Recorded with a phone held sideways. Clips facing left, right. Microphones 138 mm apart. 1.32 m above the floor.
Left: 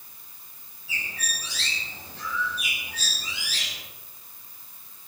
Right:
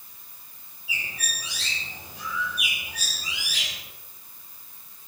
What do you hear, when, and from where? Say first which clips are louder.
0.9 s a bird: even; 10° right (ahead or behind), 4 m